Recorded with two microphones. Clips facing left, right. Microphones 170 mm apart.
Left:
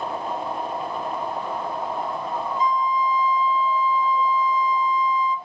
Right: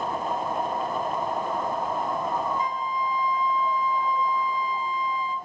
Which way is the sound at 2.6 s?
60° right (ahead or behind).